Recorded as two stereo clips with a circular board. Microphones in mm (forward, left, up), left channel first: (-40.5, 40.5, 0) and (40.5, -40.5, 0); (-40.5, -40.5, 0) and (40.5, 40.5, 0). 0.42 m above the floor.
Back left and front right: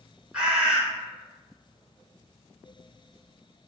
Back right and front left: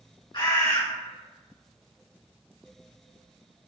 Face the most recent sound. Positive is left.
turn(degrees=-120)